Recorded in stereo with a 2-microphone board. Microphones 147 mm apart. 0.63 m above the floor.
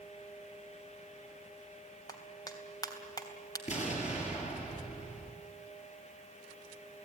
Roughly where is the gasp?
No gasp in this recording.